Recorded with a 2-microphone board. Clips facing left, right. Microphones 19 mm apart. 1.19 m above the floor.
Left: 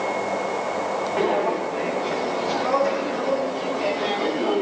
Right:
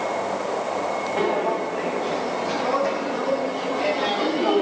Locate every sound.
1.2 s footsteps: 10° left (ahead or behind), 3 m; by 4.6 s 20° right (ahead or behind), 1.5 m